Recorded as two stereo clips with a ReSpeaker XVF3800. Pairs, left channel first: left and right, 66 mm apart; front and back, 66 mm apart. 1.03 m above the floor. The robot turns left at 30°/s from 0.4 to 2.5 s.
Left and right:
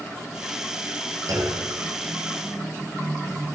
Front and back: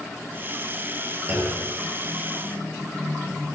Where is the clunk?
120° right, 6.5 m; by 1.7 s 135° right, 6.5 m.